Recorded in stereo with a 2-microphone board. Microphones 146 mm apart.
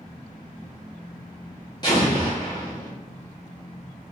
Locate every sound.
1.8 s an explosion: 30° left (ahead or behind), 1.4 m